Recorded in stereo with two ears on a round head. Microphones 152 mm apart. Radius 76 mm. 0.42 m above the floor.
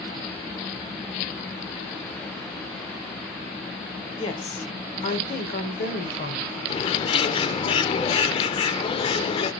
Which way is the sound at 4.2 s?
25° left (ahead or behind).